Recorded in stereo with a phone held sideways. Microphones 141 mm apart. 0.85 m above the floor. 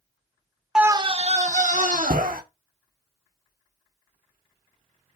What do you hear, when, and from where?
0.8 s a scream: 5° right (ahead or behind), 0.5 m; by 2.4 s 75° right (ahead or behind), 2 m